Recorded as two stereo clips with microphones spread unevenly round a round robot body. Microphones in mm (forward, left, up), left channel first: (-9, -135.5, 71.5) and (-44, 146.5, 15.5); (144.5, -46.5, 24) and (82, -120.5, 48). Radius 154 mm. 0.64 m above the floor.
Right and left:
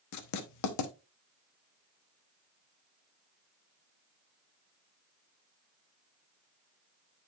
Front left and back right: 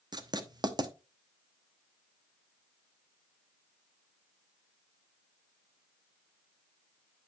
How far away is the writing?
About 1.1 m.